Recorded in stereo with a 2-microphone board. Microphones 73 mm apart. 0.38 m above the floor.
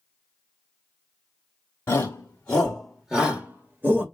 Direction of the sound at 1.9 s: 25° left (ahead or behind).